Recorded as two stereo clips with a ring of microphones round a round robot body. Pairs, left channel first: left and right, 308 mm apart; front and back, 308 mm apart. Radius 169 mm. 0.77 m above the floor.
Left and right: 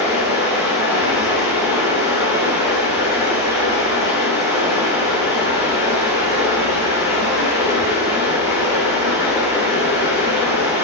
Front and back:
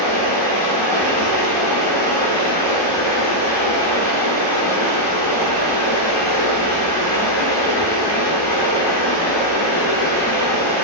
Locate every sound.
0.0 s running water: 10° right, 4.5 m